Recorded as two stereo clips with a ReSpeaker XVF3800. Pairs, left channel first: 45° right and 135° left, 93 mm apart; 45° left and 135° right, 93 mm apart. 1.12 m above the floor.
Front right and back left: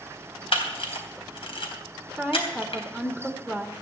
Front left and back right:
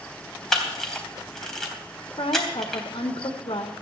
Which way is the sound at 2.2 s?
35° left.